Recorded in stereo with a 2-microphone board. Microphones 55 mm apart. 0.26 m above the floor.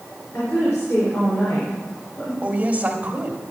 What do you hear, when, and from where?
0.3 s a woman speaking: 75° left (ahead or behind), 5 m
2.4 s a woman speaking: 25° right (ahead or behind), 1.3 m